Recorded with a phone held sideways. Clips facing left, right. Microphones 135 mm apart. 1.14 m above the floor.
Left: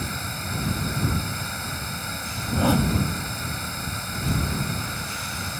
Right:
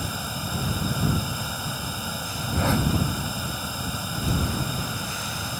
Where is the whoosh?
15° left (ahead or behind).